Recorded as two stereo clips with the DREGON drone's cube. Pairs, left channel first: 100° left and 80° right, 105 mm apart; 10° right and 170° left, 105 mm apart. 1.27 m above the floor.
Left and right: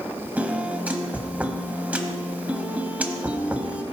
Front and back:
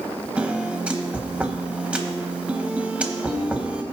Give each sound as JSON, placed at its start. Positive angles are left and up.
{"t": 0.4, "sound": "a piano", "azimuth_deg": -135, "distance_m": 1.1}